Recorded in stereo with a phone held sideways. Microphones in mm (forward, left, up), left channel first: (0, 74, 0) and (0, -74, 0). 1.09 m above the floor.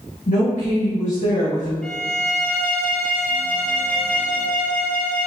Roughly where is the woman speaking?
Left.